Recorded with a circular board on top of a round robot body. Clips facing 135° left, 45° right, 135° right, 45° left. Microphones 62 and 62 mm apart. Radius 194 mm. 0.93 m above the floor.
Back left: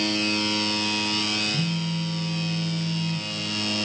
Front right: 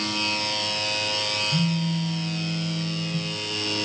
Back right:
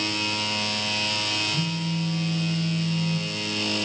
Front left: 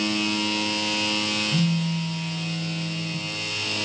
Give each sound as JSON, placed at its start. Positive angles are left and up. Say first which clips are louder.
{"t": 1.5, "sound": "a phone buzzing", "louder": "front right 2 dB, front left 4 dB", "azimuth_deg": -10, "distance_m": 1.9}